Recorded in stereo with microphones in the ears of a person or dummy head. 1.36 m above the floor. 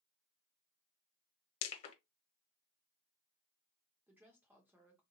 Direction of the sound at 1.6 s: 35° left (ahead or behind).